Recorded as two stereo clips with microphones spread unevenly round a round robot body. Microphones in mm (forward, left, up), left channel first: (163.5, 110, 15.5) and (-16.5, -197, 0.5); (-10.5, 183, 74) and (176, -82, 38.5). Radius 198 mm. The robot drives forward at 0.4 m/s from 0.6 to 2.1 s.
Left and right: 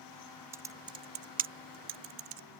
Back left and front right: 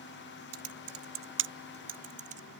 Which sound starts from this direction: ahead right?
Typing on a keyboard, at 0.5 s.